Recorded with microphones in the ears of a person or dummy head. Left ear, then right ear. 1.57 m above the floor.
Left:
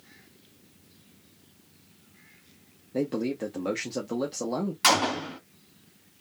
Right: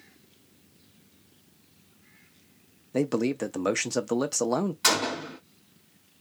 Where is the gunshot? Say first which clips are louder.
Left 4 dB; 10° left (ahead or behind), 1.6 m.